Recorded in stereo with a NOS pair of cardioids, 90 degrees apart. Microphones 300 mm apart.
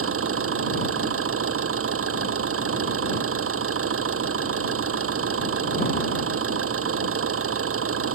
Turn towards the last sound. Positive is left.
turn(degrees=-50)